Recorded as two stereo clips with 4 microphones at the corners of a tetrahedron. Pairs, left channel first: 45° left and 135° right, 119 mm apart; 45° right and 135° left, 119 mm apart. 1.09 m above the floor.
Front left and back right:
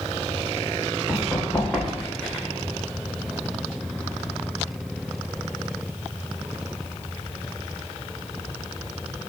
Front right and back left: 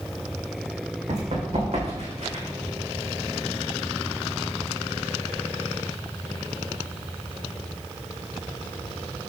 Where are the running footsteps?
125° left, 3.5 m.